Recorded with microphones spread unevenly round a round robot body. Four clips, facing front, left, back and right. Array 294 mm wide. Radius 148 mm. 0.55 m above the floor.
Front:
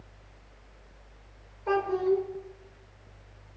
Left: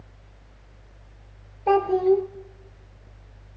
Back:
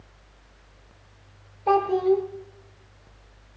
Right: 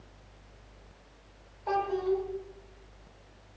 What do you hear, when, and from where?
1.7 s a child speaking: 115° left, 1.5 m